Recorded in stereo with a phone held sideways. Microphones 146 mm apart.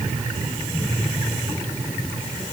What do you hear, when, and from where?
Only background noise.